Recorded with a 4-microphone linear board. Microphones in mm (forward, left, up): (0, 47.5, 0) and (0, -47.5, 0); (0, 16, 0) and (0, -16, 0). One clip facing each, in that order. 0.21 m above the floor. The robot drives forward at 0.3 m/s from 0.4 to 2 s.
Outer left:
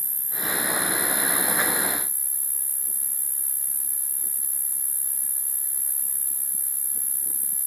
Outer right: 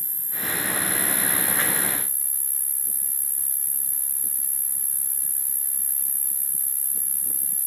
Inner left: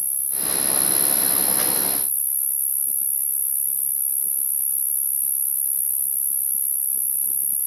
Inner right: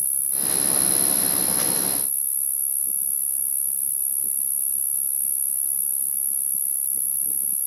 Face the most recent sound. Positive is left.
turn(degrees=10)  # may be behind; listen again after turning